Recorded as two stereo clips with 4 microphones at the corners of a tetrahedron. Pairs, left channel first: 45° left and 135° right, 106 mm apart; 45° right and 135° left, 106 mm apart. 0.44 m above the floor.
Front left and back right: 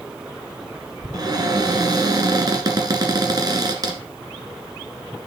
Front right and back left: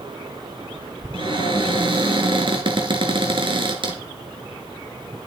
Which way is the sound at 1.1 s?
175° left.